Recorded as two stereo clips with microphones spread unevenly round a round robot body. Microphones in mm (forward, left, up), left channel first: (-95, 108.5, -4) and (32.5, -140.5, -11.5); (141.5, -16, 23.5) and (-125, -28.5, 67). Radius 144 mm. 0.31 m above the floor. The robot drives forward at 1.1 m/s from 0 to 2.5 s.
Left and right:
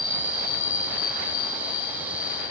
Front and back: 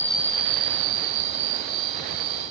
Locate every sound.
0.0 s an insect: 30° left; by 2.5 s 175° left